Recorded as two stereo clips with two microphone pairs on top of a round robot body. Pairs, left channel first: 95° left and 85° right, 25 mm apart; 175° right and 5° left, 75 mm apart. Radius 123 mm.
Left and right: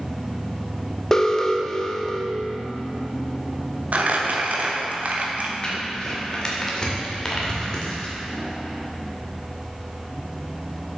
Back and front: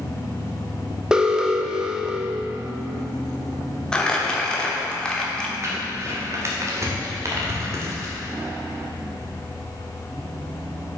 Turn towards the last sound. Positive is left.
turn(degrees=45)